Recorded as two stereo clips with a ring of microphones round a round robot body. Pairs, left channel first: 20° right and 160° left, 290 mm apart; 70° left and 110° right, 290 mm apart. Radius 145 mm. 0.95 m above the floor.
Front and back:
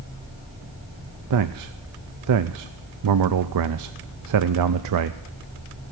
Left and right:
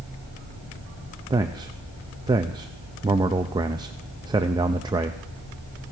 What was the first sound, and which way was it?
A man speaking, 170° left.